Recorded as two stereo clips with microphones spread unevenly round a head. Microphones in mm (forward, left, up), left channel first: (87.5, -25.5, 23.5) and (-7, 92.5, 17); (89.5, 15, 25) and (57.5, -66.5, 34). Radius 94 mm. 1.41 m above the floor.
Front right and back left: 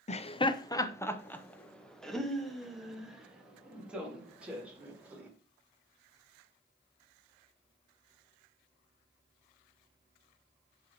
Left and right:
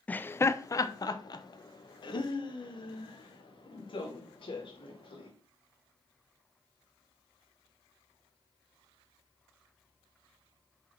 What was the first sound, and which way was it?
Laughter, 5° right.